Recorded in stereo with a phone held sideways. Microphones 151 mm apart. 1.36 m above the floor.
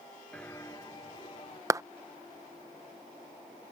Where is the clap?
20° right (ahead or behind).